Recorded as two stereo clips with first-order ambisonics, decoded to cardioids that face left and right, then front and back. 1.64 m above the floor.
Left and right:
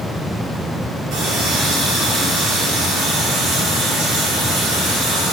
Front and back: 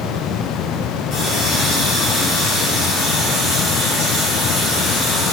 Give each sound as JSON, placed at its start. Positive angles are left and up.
{"t": 1.1, "sound": "a running tap", "azimuth_deg": -50, "distance_m": 3.5}